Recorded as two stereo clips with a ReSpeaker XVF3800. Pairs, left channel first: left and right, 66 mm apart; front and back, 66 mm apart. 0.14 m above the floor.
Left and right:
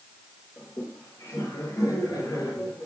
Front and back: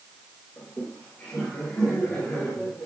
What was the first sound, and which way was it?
Laughter, 75° left.